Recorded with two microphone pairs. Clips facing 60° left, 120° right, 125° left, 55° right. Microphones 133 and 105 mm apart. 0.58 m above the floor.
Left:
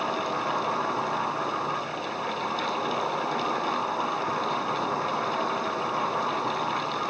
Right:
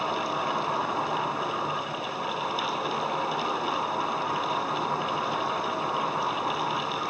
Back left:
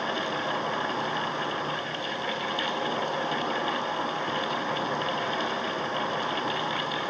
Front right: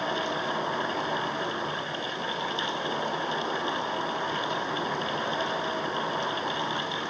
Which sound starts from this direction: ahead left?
An insect, at 0.0 s.